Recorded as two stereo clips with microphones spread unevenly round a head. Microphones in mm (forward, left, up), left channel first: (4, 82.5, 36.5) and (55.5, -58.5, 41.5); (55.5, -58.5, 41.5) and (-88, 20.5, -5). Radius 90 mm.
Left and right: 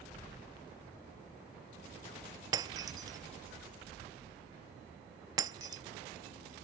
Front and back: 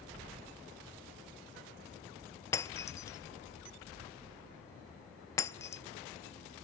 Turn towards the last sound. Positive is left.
turn(degrees=-30)